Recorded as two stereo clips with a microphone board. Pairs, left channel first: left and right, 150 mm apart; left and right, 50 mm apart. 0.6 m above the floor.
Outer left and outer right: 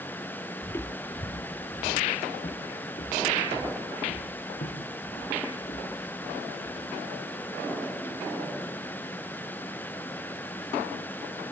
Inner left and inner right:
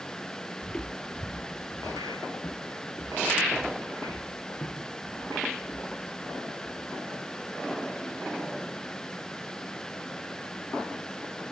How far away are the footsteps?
About 0.7 m.